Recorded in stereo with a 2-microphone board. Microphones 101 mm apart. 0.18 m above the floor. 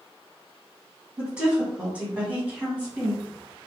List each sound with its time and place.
1.2 s a woman speaking: 10° right (ahead or behind), 1.5 m; by 3.2 s 15° right (ahead or behind), 1.5 m